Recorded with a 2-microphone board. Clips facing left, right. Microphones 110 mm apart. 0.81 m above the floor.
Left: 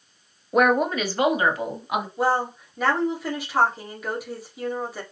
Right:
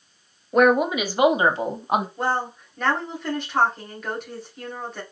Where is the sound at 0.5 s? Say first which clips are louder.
Right 2 dB; 5° left (ahead or behind), 0.9 m; by 2.1 s 40° right (ahead or behind), 1.2 m.